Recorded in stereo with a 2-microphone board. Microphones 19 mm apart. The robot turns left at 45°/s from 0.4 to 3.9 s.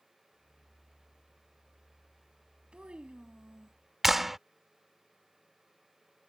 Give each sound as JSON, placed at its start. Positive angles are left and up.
{"t": 2.7, "sound": "a child speaking", "azimuth_deg": -80}
{"t": 4.0, "sound": "a clap", "side_deg": -10}